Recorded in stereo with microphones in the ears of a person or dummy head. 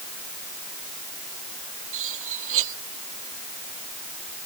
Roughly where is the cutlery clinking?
Right.